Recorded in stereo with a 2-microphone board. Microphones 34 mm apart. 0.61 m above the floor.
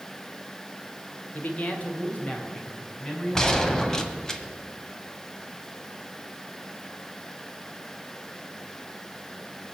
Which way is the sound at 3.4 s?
15° left (ahead or behind).